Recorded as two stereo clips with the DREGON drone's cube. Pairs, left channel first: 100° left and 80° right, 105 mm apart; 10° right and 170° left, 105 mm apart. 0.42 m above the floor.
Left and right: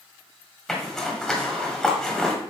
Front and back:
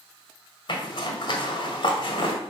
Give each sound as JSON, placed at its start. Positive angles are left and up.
{"t": 0.7, "sound": "a zipper", "azimuth_deg": 15, "distance_m": 1.7}